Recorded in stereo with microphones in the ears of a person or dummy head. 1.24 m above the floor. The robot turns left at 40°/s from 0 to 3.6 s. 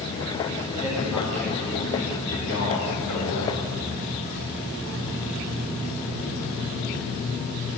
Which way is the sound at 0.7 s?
165° right.